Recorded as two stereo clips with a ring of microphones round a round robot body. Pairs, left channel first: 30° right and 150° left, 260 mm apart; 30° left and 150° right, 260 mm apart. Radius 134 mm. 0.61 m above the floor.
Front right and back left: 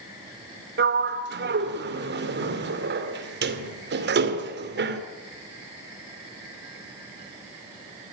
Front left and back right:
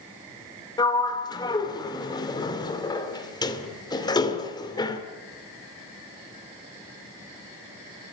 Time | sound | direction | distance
0.8 | a sliding door | 105° left | 2 m